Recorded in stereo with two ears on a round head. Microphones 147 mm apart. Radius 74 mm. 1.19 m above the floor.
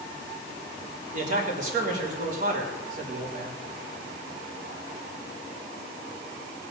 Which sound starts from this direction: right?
A man speaking, at 1.1 s.